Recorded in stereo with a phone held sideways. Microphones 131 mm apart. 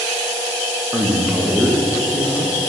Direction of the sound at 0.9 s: 5° right (ahead or behind).